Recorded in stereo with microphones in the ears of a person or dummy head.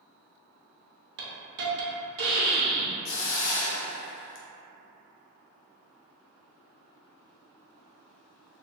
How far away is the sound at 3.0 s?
About 0.5 m.